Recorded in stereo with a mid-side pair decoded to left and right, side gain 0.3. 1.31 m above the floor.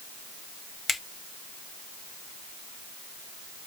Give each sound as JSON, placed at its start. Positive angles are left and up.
{"t": 0.9, "sound": "a finger snap", "azimuth_deg": 65, "distance_m": 1.0}